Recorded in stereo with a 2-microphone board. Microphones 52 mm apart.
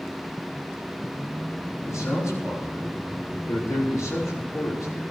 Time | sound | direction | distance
1.9 | a man speaking | 85° left | 5 m